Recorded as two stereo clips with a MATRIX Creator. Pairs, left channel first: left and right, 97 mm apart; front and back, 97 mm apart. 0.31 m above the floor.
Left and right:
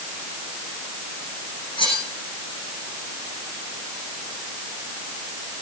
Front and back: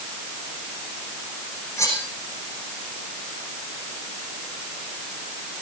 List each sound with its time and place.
1.8 s cutlery clinking: 60° left, 10 m